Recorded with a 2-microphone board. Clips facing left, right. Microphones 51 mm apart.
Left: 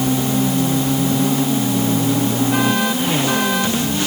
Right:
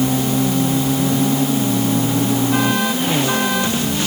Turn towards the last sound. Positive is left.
No sound to turn to.